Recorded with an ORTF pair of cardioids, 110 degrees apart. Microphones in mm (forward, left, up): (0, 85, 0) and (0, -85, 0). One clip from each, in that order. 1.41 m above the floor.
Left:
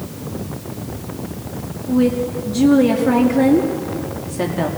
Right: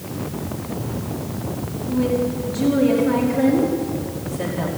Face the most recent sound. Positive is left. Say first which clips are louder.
# left 3 dB
turn(degrees=45)